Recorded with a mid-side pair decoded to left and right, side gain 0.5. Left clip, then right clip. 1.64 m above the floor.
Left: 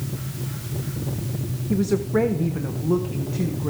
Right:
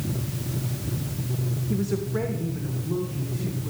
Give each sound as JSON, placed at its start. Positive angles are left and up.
{"t": 1.7, "sound": "a woman speaking", "azimuth_deg": 30, "distance_m": 1.0}